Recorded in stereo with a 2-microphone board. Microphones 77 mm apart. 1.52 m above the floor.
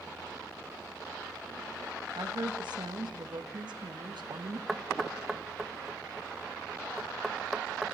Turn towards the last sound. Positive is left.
turn(degrees=-5)  # may be behind; listen again after turning